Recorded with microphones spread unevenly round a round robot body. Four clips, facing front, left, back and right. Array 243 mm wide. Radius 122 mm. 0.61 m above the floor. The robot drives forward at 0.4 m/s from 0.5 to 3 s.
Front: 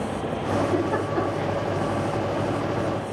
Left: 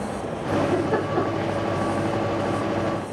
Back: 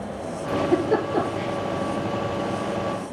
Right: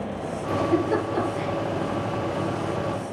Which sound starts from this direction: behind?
A giggle, at 0.5 s.